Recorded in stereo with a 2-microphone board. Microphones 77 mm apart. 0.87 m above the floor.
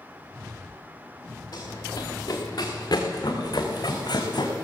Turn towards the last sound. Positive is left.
turn(degrees=70)  # may be behind; listen again after turning